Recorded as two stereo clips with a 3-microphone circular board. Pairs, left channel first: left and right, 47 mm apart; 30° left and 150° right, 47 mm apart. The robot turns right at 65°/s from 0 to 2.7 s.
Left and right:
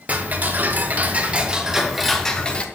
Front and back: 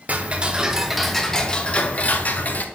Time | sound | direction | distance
0.1 | ticking | 120° right | 0.6 m